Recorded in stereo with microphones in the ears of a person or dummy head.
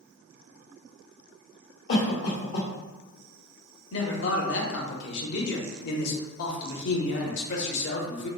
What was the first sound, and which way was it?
A cough, 55° left (ahead or behind).